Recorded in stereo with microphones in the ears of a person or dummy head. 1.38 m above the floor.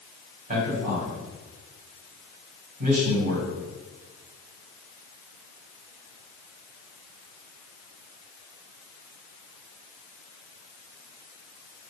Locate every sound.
0.5 s a man speaking: 45° right (ahead or behind), 2.5 m